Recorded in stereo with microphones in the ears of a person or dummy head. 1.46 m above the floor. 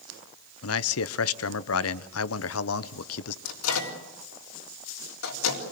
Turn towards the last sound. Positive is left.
turn(degrees=85)